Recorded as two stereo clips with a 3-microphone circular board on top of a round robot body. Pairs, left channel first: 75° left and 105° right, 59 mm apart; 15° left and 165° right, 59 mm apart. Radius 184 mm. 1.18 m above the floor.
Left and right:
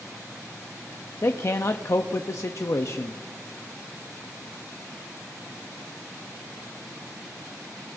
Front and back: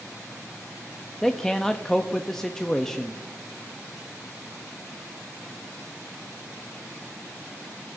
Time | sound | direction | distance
1.2 | a man speaking | 95° left | 0.7 m